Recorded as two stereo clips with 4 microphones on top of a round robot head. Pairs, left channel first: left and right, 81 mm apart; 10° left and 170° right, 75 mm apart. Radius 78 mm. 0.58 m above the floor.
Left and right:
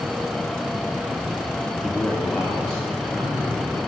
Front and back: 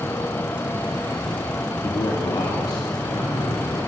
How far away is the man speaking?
About 0.9 m.